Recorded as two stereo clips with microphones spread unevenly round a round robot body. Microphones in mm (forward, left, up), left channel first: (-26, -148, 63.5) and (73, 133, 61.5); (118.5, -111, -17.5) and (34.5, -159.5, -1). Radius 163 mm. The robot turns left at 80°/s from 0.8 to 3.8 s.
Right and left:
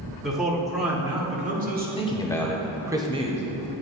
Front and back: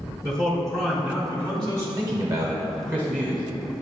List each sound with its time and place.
0.2 s a man speaking: 160° left, 1.1 m; by 1.9 s 75° left, 1.1 m
2.0 s a man speaking: 150° right, 0.9 m; by 3.4 s 95° left, 0.9 m